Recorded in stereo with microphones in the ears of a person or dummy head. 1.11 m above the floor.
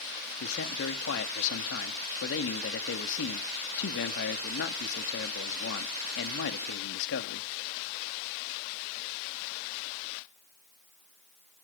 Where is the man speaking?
65° left (ahead or behind), 1.5 m.